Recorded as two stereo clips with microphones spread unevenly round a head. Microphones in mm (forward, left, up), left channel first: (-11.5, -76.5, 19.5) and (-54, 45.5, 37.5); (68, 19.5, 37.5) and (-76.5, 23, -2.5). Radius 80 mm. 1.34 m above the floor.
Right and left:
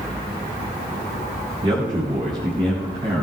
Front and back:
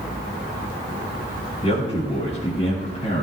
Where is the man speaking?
50° left, 7.5 m.